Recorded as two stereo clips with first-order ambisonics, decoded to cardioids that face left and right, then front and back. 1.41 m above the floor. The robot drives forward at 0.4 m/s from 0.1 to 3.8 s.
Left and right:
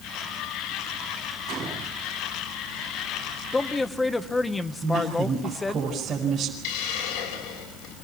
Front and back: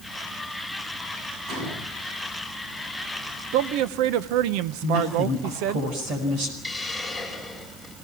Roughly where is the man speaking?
Behind.